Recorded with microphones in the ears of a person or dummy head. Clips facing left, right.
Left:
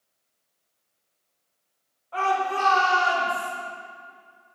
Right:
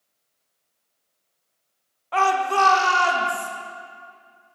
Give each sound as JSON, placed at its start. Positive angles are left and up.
{"t": 2.1, "sound": "a shout", "side_deg": -80, "distance_m": 0.8}